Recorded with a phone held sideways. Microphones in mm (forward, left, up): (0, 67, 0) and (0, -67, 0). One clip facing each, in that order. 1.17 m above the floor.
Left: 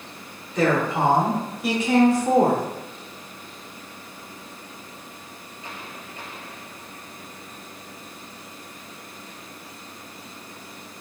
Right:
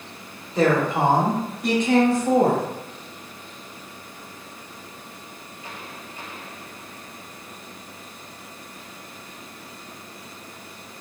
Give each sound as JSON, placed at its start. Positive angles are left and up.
{"t": 0.6, "sound": "a woman speaking", "side_deg": -30, "distance_m": 1.0}